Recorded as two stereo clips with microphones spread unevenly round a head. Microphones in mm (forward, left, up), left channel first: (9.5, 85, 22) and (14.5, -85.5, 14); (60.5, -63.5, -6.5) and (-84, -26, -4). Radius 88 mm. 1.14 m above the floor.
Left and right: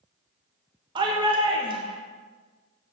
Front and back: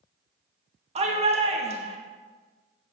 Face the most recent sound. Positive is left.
turn(degrees=-150)